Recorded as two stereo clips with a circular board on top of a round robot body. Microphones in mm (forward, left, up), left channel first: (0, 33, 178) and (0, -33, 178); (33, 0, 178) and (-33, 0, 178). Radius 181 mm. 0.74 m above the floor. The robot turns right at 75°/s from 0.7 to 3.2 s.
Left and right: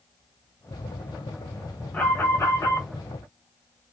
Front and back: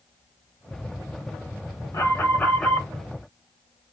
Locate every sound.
1.9 s an alarm: 20° left, 1.9 m; by 2.9 s 90° left, 1.9 m